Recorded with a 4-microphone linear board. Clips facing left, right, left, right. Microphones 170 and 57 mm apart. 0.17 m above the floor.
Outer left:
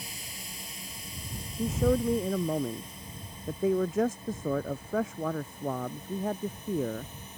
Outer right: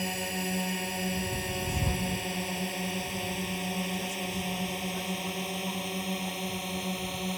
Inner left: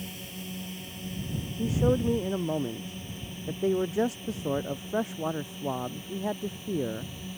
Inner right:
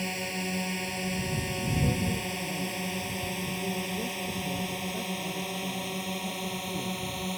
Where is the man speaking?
80° left.